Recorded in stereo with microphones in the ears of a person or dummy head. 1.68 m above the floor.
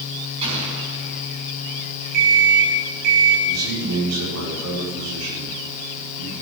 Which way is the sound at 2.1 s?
55° right (ahead or behind).